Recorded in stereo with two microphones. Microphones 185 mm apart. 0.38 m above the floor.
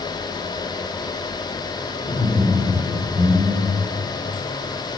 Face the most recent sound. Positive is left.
turn(degrees=-10)  # may be behind; listen again after turning